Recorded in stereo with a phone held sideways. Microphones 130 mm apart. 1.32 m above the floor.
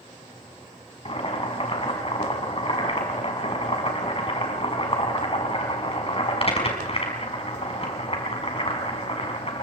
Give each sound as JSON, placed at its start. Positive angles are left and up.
{"t": 1.1, "sound": "boiling", "side_deg": 45, "distance_m": 5.0}